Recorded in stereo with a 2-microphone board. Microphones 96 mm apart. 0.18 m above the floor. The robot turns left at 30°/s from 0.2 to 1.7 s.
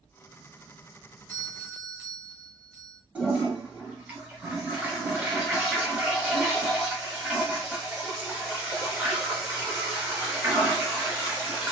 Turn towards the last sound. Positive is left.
turn(degrees=-15)  # may be behind; listen again after turning